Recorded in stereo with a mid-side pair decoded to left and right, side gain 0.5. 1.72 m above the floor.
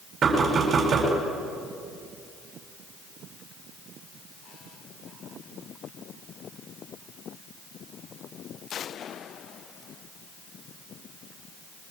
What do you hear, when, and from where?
0.2 s knocking: 40° right, 8 m